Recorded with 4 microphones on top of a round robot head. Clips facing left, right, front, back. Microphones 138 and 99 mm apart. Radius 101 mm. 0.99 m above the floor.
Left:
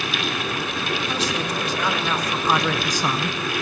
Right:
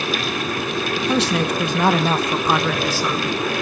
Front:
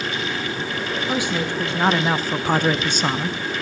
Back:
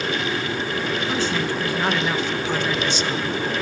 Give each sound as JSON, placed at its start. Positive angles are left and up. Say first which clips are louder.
{"t": 1.0, "sound": "a man speaking", "louder": "right 9 dB, front 3 dB", "azimuth_deg": -80, "distance_m": 1.5}